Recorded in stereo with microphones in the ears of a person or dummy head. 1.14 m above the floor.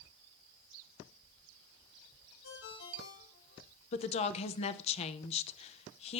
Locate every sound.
2.4 s a ringtone: 80° left, 3.5 m
3.9 s a woman speaking: 35° left (ahead or behind), 0.7 m